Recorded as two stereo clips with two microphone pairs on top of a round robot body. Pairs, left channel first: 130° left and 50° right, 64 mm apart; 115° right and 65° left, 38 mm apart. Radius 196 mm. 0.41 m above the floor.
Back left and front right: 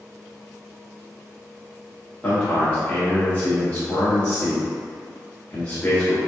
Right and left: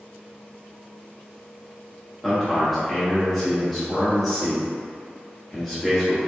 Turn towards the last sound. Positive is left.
turn(degrees=155)